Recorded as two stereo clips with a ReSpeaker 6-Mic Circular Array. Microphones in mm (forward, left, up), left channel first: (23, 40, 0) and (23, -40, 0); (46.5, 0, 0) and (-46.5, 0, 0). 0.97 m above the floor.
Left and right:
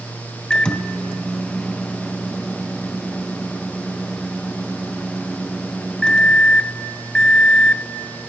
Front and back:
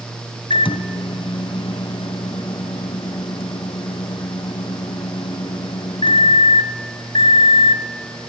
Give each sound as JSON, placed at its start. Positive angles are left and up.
{"t": 0.5, "sound": "a microwave", "azimuth_deg": 10, "distance_m": 0.5}